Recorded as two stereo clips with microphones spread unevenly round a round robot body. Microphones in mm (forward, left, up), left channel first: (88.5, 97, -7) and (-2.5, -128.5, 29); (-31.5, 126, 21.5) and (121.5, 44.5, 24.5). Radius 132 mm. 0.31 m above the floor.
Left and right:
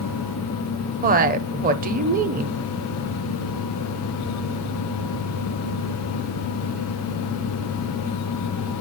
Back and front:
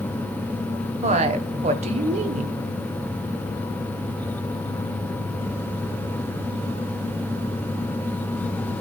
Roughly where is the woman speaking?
Ahead right.